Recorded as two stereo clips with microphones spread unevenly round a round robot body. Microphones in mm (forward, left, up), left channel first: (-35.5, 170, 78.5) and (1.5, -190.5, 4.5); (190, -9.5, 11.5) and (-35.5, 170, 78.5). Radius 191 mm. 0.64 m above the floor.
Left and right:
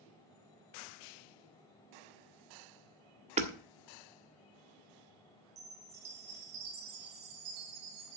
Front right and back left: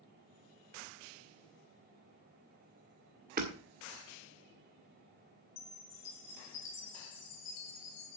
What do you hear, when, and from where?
3.4 s hammering: 150° right, 1.5 m
5.6 s a chime: 80° right, 3 m